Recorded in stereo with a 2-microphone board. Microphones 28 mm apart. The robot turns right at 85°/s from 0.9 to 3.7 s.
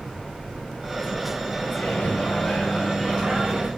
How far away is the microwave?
About 4.5 m.